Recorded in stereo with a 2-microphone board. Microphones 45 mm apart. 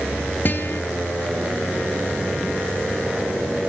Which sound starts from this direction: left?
A guitar, at 0.5 s.